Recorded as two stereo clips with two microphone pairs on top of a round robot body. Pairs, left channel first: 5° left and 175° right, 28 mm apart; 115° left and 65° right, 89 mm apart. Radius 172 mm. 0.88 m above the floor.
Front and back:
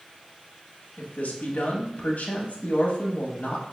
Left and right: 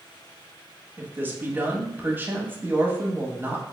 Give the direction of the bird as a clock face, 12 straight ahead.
I don't hear a bird.